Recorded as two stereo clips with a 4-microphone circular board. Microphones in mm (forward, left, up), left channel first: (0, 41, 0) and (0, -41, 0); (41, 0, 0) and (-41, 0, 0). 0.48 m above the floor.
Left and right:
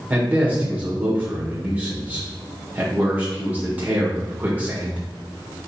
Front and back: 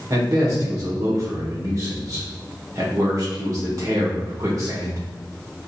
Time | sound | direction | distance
0.1 | a man speaking | 155° right | 1.2 m